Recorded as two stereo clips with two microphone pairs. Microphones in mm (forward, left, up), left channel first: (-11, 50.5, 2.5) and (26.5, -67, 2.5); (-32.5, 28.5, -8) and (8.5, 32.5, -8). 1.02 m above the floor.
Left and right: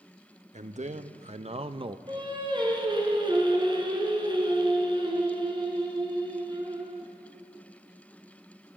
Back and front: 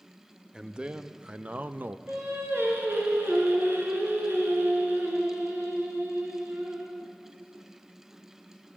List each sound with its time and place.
0.5 s a man speaking: 65° right, 1.2 m; by 2.0 s 30° right, 0.7 m
2.1 s singing: 20° right, 4 m